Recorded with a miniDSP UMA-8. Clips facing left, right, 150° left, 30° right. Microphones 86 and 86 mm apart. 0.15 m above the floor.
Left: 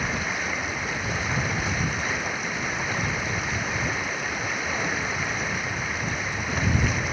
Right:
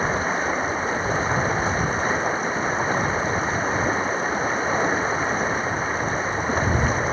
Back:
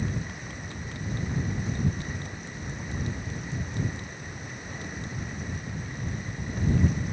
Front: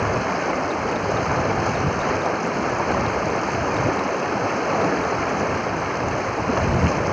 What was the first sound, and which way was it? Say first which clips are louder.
Running water: right 6 dB, front 14 dB; 30° right.